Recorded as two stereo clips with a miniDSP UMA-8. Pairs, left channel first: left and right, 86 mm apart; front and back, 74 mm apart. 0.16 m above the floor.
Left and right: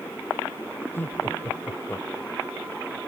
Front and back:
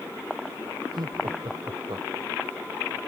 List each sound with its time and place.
0.9 s laughter: 155° left; by 2.5 s 160° left